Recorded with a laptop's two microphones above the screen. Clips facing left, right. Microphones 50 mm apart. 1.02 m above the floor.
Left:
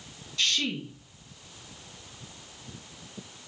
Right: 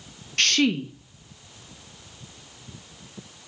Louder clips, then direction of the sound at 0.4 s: Right 7 dB; 65° right (ahead or behind).